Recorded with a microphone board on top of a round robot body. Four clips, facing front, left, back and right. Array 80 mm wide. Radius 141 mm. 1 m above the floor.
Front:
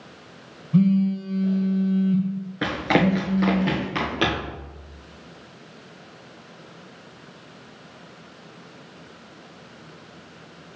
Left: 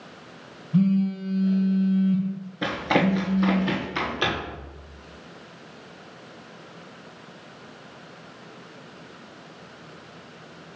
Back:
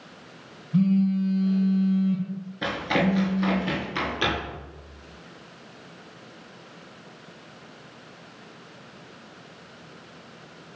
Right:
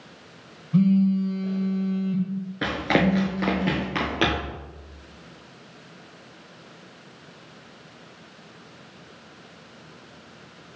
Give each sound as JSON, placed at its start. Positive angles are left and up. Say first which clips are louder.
{"t": 0.7, "sound": "a phone buzzing", "louder": "right 2 dB, front 2 dB", "azimuth_deg": -40, "distance_m": 0.8}
{"t": 2.6, "sound": "running footsteps", "louder": "even, front 4 dB", "azimuth_deg": -30, "distance_m": 1.0}